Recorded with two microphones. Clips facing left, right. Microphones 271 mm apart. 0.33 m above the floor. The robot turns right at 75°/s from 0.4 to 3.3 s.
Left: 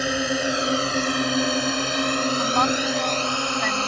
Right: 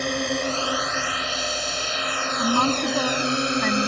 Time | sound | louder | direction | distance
0.0 | a drone | left 1 dB | 5° left (ahead or behind) | ?
2.4 | a woman speaking | right 1 dB | 135° right | ?